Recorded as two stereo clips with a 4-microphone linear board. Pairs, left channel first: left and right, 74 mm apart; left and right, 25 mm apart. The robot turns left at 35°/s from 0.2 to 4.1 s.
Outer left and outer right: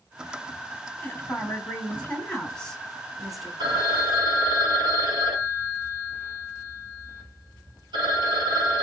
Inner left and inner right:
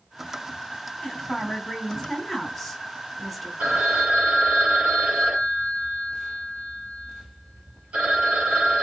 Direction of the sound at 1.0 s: 25° left (ahead or behind).